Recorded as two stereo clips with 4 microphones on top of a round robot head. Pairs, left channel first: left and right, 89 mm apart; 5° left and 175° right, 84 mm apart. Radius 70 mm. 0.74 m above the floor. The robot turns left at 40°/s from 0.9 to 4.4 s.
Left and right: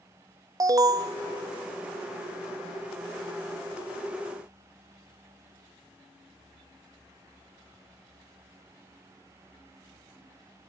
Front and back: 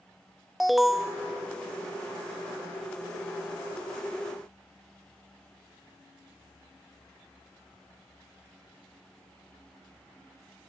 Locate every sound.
0.6 s an alarm: 85° right, 0.7 m; by 1.2 s 100° right, 0.7 m